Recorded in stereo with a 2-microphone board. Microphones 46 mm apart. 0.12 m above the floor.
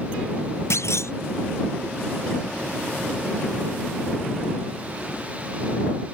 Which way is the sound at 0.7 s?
80° left.